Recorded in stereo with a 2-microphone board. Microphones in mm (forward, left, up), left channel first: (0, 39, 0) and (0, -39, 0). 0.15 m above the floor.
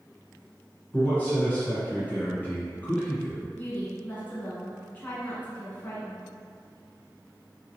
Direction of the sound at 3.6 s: 25° left (ahead or behind).